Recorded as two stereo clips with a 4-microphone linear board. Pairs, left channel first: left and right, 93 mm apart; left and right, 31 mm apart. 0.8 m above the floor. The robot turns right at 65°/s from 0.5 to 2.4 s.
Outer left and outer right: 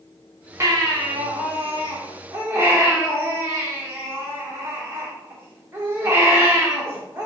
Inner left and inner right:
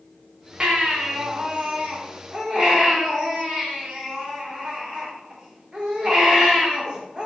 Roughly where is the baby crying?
Behind right.